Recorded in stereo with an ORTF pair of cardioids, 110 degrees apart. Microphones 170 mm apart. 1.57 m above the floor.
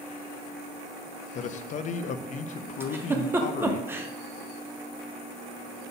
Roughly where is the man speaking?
Ahead left.